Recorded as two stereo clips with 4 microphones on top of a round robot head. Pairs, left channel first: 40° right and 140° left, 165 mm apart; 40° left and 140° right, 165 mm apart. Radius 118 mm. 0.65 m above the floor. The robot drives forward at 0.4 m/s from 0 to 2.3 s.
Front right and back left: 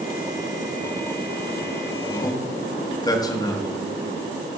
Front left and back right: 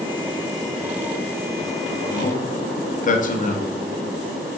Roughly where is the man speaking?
Ahead.